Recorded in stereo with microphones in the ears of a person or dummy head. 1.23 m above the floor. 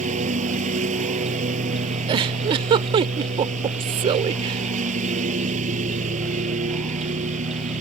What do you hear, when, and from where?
0.0 s a lawn mower: 45° right (ahead or behind)
2.1 s a giggle: 30° right (ahead or behind)